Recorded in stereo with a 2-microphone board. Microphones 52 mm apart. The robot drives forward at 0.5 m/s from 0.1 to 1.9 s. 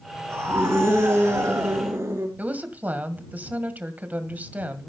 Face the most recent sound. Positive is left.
turn(degrees=-35)  # may be behind; listen again after turning